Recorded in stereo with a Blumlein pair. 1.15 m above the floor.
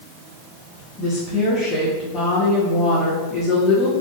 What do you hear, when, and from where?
1.0 s a woman speaking: 10° left, 1.0 m